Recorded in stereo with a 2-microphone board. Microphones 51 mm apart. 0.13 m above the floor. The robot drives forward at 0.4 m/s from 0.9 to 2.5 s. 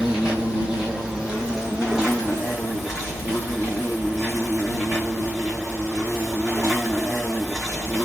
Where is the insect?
15° right (ahead or behind), 0.9 m; by 8.1 s 10° right (ahead or behind), 1.6 m.